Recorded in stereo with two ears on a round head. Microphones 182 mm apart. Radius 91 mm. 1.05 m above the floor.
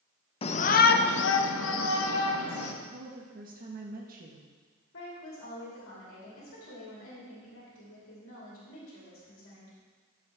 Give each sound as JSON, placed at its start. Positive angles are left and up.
{"t": 0.4, "sound": "a shout", "side_deg": 30, "distance_m": 0.6}
{"t": 2.9, "sound": "a woman speaking", "side_deg": -45, "distance_m": 1.2}
{"t": 4.9, "sound": "a woman speaking", "side_deg": 75, "distance_m": 3.0}